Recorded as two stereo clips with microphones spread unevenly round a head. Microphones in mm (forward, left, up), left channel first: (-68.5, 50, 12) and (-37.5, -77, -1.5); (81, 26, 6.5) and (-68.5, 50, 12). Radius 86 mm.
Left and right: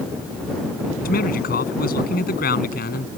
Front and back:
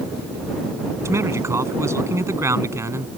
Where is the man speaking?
100° left.